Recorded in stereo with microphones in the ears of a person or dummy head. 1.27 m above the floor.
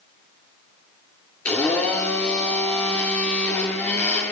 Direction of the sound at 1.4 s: 10° left (ahead or behind).